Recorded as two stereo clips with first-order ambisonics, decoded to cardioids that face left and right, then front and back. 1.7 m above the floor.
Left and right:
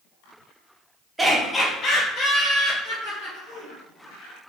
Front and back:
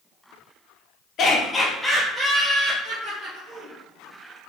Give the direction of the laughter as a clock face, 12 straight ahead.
12 o'clock.